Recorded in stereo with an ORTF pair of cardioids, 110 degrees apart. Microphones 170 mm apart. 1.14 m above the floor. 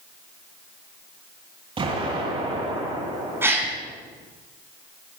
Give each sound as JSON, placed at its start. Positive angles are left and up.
{"t": 1.8, "sound": "an explosion", "azimuth_deg": -30, "distance_m": 9.0}
{"t": 3.4, "sound": "a gasp", "azimuth_deg": -15, "distance_m": 3.5}